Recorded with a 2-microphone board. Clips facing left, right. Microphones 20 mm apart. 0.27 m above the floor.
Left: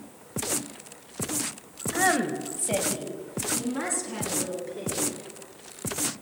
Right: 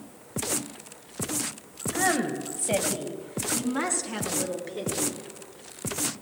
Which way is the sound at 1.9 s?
20° left (ahead or behind).